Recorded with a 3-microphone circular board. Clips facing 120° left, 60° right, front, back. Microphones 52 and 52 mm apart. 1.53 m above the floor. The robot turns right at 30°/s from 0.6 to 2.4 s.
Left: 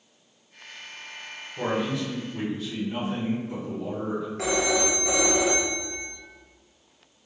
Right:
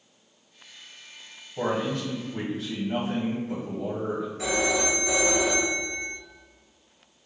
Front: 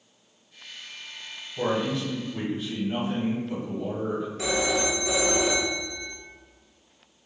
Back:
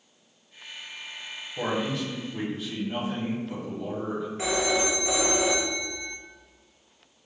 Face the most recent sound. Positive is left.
turn(degrees=120)